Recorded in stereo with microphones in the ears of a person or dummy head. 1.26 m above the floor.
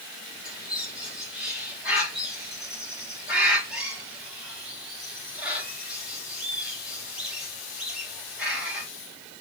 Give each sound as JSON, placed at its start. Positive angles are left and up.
{"t": 0.5, "sound": "a bird", "side_deg": -10, "distance_m": 3.5}